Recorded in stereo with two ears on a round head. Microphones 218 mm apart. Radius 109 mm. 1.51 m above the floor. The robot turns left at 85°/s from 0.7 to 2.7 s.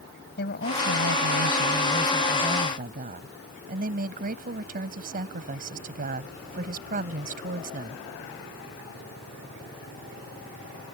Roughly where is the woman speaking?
Behind left.